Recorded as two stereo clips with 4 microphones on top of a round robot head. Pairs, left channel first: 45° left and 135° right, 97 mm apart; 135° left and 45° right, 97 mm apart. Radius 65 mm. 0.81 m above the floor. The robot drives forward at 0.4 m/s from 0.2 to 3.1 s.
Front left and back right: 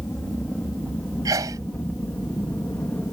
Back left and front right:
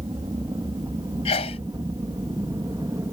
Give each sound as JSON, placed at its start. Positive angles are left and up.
{"t": 0.0, "sound": "an aircraft", "azimuth_deg": -30}
{"t": 1.2, "sound": "a sneeze", "azimuth_deg": 165}